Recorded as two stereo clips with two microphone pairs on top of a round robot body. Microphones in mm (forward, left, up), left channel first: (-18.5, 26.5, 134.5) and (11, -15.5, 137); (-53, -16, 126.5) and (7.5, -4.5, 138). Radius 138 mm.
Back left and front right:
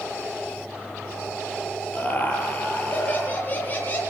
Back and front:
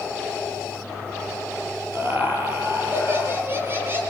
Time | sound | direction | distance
1.9 | laughter | 70° left | 8.5 m